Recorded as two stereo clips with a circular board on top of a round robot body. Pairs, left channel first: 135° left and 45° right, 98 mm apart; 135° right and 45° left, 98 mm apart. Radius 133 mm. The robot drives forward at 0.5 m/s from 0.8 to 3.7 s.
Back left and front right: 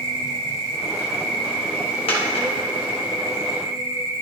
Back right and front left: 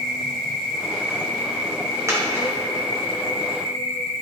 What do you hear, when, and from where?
0.0 s an insect: 50° right, 1.5 m; by 4.2 s 110° right, 1.2 m
2.1 s a dropped coin: 105° left, 1.5 m; by 2.5 s 115° left, 1.6 m